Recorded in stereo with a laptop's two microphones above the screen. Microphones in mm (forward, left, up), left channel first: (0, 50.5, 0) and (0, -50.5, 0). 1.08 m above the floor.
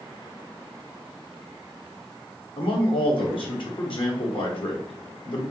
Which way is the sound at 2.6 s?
60° left (ahead or behind).